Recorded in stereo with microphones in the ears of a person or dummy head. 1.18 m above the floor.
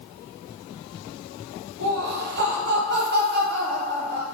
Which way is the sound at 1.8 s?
45° right (ahead or behind).